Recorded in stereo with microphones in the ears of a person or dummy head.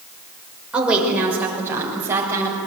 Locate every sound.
0.7 s a woman speaking: 10° right (ahead or behind), 5.5 m; by 2.6 s 15° right (ahead or behind), 8 m